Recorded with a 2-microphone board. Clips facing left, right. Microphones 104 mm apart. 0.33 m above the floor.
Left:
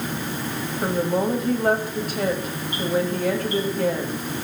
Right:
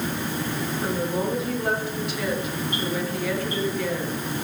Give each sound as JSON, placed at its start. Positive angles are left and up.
{"t": 0.8, "sound": "a woman speaking", "side_deg": 45, "distance_m": 1.7}